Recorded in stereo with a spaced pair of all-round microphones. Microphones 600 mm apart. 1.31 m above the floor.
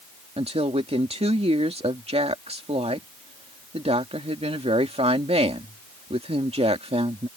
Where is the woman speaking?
10° right (ahead or behind).